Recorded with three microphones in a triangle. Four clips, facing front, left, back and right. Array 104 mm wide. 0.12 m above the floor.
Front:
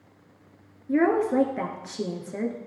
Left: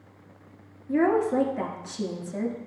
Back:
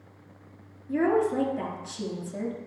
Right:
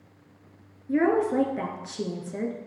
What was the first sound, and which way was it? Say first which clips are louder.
A woman speaking: even, front 2 dB; 30° right.